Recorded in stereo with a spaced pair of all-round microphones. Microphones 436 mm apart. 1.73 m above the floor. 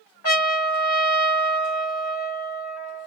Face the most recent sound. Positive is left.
turn(degrees=30)  # may be behind; listen again after turning